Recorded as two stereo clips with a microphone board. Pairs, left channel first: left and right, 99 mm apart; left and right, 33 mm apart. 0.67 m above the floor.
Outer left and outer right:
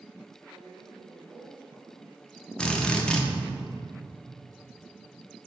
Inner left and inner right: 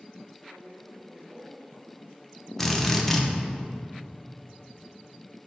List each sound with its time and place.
0.5 s a woman speaking: 20° left (ahead or behind), 2.5 m; by 2.5 s 10° left (ahead or behind), 4.5 m
2.6 s a drill: 10° left (ahead or behind), 1.0 m